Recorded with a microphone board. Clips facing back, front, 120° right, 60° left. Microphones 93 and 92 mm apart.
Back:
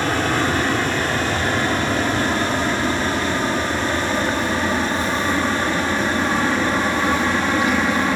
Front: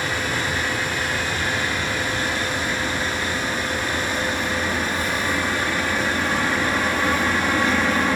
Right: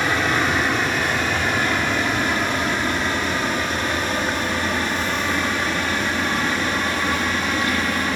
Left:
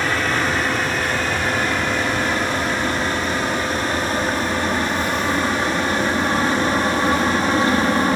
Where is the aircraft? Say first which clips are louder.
Back 6 dB, even; 160° left; by 8.2 s 100° left.